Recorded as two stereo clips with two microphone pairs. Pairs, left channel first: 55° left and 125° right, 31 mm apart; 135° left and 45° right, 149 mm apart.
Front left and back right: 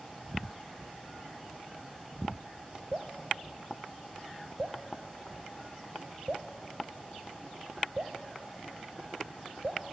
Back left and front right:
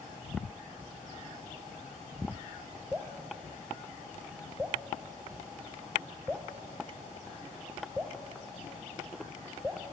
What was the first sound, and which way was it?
Dripping, 120° right.